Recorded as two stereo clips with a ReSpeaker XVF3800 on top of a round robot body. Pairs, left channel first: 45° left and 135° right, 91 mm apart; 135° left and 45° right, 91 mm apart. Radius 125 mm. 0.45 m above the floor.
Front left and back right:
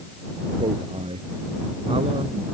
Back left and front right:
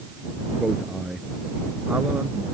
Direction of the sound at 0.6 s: 130° right.